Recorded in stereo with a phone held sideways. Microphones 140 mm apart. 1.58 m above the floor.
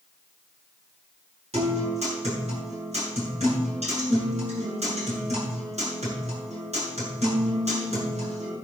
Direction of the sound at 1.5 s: 50° right (ahead or behind).